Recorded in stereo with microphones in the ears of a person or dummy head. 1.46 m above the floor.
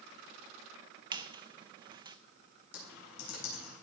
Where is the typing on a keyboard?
65° left (ahead or behind), 4.5 m.